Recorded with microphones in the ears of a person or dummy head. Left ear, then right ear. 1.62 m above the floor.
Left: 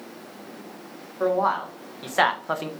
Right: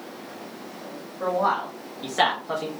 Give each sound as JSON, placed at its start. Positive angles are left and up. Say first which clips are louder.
{"t": 1.2, "sound": "a man speaking", "louder": "left 1 dB", "side_deg": 40, "distance_m": 1.3}